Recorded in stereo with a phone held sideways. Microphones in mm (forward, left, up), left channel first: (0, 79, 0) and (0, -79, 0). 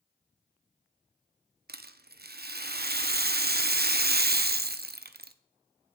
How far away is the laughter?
No laughter in this recording.